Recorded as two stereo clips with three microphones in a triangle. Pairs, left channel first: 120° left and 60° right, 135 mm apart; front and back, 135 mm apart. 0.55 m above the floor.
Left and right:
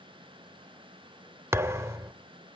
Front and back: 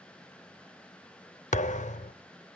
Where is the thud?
10° left, 0.6 m.